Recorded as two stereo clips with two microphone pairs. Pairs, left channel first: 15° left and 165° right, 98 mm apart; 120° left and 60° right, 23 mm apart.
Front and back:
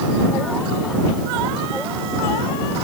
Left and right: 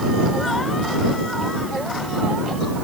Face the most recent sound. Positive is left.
No sound to turn to.